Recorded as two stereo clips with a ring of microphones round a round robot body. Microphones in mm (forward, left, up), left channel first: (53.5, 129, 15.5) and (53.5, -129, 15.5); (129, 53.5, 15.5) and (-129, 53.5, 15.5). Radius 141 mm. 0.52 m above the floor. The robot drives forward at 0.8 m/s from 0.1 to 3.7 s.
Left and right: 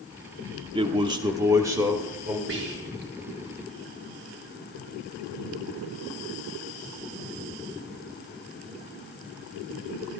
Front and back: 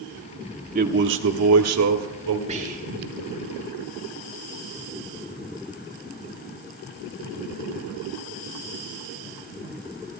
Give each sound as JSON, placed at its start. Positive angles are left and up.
{"t": 0.8, "sound": "a man speaking", "azimuth_deg": -150, "distance_m": 0.8}
{"t": 2.5, "sound": "whispering", "azimuth_deg": -120, "distance_m": 1.7}